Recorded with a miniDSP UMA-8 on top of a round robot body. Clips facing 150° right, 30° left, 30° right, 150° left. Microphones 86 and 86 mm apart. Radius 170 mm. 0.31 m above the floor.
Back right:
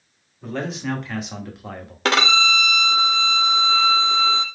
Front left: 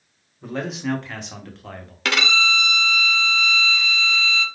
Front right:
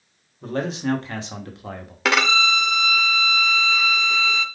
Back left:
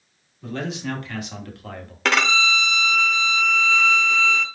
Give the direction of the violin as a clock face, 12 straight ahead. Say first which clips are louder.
Back right 3 dB, front right 1 dB; 4 o'clock.